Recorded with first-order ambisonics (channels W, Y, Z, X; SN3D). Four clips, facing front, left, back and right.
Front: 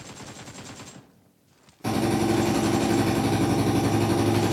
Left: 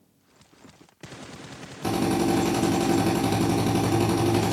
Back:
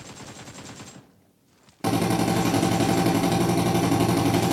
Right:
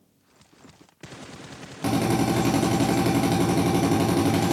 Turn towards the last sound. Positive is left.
turn(degrees=-130)